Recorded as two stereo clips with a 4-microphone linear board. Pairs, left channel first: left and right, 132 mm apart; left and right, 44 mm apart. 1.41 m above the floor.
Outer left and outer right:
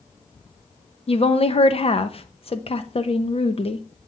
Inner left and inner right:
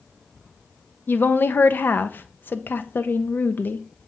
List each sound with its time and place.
1.1 s a woman speaking: 45° left (ahead or behind), 0.6 m